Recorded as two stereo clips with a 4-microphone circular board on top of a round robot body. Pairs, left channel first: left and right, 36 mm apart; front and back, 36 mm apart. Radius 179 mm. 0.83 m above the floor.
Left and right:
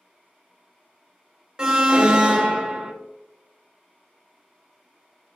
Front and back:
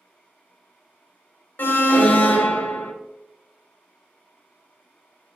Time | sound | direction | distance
1.6 | an alarm | 20° right | 0.6 m